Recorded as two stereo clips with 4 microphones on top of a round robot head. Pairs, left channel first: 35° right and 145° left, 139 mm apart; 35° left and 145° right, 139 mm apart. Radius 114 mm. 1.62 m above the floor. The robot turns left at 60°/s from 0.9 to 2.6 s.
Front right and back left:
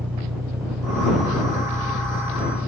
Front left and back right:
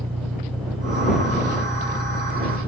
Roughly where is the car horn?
No car horn in this recording.